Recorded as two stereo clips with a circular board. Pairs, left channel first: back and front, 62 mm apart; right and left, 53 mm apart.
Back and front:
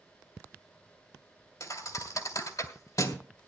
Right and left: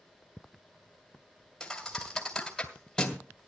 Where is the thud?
170° right, 2.5 m.